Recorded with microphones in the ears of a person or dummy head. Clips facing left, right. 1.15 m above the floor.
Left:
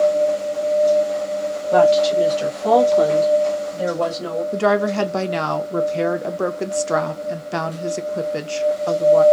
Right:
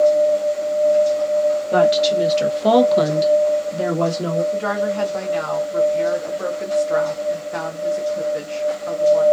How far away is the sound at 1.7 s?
About 1.1 m.